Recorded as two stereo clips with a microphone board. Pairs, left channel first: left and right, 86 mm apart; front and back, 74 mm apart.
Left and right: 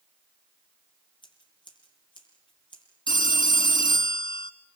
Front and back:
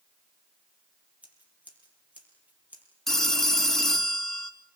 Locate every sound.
1.2 s scissors: 110° left, 6 m
3.1 s a phone ringing: 85° left, 1.9 m